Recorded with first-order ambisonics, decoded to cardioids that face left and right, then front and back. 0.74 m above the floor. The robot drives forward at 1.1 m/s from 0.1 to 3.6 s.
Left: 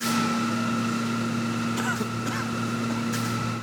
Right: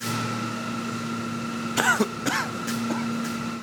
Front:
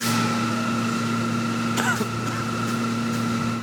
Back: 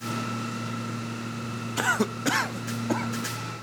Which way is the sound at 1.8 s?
65° right.